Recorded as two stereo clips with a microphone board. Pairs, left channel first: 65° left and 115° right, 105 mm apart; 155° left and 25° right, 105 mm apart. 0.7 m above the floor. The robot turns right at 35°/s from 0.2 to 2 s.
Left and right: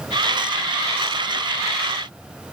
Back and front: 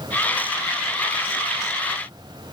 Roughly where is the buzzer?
I don't hear a buzzer.